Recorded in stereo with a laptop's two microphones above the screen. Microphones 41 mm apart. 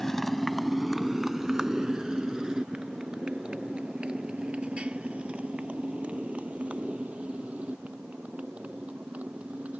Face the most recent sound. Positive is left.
turn(degrees=-35)  # may be behind; listen again after turning